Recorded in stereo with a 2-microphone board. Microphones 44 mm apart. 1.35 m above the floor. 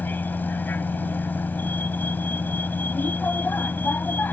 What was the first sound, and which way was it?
A vehicle, 50° left (ahead or behind).